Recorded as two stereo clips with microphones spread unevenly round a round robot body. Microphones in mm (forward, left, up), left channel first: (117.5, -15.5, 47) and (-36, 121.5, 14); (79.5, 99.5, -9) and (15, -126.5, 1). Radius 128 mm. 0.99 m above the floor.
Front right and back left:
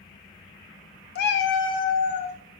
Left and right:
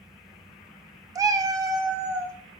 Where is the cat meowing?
35° right, 0.5 m; by 2.4 s 30° right, 1.4 m.